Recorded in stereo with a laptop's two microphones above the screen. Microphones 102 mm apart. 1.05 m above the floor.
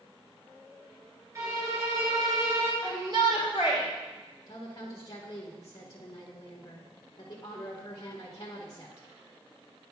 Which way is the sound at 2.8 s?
45° right (ahead or behind).